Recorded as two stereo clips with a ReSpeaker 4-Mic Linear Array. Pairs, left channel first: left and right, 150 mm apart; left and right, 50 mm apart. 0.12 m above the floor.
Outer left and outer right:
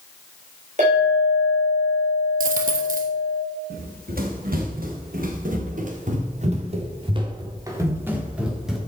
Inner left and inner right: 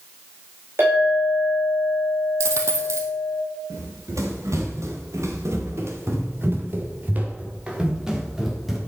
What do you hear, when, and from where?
0.8 s a clink: 50° right (ahead or behind), 6 m
2.4 s a dropped coin: 70° right (ahead or behind), 2 m
3.7 s running footsteps: 90° right, 5 m; by 8.8 s centre (ahead or behind), 4 m